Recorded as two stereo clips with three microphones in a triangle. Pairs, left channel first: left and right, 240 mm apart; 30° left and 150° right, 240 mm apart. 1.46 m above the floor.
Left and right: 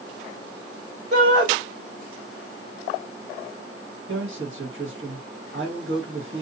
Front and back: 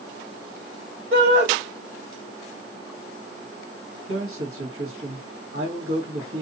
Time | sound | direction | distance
1.1 | a shout | 110° right | 1.9 m
4.1 | a man speaking | 125° right | 1.3 m